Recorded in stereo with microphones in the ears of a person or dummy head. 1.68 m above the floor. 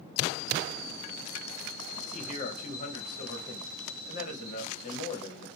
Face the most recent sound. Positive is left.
turn(degrees=40)  # may be behind; listen again after turning